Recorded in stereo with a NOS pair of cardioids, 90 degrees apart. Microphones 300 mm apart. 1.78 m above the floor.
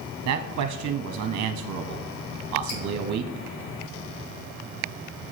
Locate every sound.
0.2 s a man speaking: 65° right, 0.8 m
2.7 s dripping: 65° left, 3 m